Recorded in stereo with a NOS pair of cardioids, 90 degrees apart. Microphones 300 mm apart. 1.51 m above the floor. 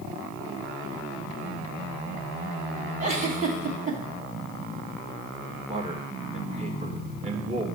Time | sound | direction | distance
3.0 | a giggle | 25° right | 1.9 m
5.7 | a man speaking | 20° right | 1.7 m